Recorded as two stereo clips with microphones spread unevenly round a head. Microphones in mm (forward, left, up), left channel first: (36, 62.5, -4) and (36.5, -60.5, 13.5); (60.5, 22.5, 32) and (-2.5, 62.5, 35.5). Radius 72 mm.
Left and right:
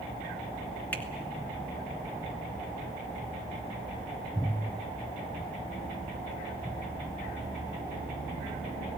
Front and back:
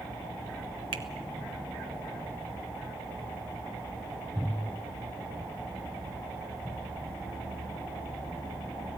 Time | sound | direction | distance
0.9 | a finger snap | 170° left | 1.3 m